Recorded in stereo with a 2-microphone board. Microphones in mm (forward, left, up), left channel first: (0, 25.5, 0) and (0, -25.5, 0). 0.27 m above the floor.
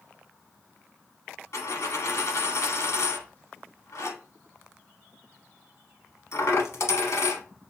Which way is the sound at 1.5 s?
70° left (ahead or behind).